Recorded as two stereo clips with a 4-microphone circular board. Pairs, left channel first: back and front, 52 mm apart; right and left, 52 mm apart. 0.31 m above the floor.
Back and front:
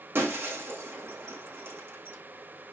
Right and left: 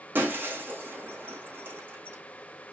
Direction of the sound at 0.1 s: 40° left.